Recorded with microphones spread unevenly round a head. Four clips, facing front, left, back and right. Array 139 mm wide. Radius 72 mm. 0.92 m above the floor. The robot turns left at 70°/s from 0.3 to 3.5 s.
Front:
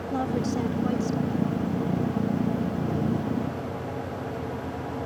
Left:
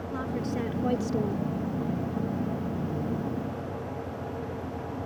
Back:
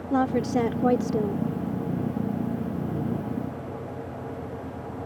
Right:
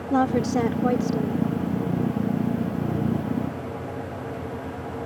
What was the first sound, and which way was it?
A woman speaking, 120° right.